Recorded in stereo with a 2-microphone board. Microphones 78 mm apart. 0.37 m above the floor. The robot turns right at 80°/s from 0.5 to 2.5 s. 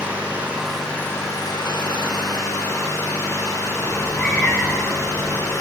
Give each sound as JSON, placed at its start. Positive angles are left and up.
{"t": 0.0, "sound": "an engine running", "azimuth_deg": -20, "distance_m": 8.0}
{"t": 3.8, "sound": "a cat meowing", "side_deg": 15, "distance_m": 6.0}